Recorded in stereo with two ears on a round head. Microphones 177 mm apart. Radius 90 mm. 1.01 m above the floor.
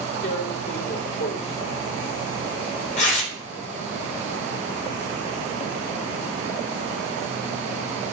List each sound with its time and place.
0.2 s tearing paper: 40° left (ahead or behind), 2.5 m